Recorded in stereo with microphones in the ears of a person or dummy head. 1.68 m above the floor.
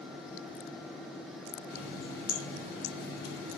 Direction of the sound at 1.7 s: 55° left (ahead or behind).